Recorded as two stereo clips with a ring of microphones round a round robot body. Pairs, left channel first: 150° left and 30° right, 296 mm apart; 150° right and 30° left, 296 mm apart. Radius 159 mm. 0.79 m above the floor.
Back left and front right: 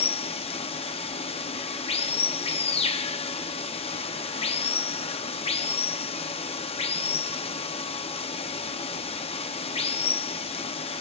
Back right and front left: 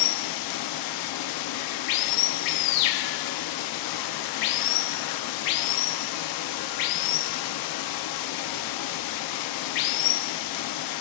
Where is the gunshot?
No gunshot in this recording.